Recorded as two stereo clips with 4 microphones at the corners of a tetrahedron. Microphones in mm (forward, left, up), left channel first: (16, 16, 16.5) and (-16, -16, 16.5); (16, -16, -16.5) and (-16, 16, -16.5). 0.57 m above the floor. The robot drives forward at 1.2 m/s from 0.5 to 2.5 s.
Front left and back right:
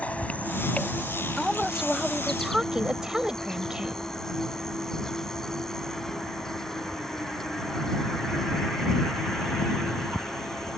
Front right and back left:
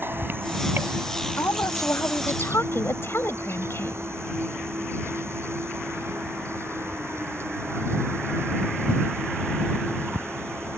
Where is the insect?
105° left; by 10.8 s 125° left.